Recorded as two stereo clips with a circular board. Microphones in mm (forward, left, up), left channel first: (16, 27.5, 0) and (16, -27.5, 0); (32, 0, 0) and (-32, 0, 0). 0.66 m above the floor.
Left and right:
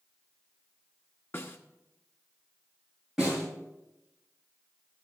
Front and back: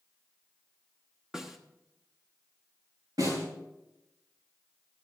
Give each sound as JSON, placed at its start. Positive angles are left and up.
{"t": 1.3, "sound": "a snare drum", "azimuth_deg": 105, "distance_m": 1.2}
{"t": 3.2, "sound": "a snare drum", "azimuth_deg": -170, "distance_m": 8.0}